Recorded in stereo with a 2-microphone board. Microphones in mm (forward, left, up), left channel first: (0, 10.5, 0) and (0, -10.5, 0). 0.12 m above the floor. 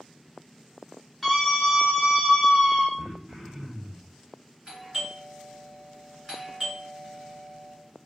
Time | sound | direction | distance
1.2 | a scream | centre (ahead or behind) | 1.7 m
3.0 | throat clearing | 40° right (ahead or behind) | 1.0 m
4.7 | a doorbell | 25° right (ahead or behind) | 1.9 m